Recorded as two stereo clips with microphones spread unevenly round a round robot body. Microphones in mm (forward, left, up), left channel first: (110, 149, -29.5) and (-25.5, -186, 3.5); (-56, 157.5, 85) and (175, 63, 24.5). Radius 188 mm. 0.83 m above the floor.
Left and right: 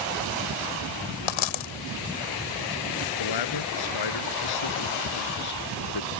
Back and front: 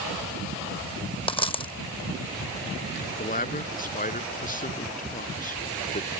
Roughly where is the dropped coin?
Left.